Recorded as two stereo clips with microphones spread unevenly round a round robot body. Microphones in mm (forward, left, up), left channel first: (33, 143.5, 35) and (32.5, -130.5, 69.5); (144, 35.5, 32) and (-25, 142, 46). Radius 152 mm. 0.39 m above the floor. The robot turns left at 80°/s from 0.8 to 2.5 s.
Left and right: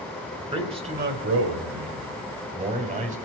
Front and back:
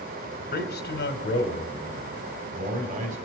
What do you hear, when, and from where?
0.5 s a man speaking: 20° right, 2.5 m; by 3.2 s 155° right, 2.5 m